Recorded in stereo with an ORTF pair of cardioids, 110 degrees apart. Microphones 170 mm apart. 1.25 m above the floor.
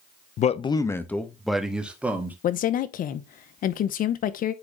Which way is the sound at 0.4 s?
50° left.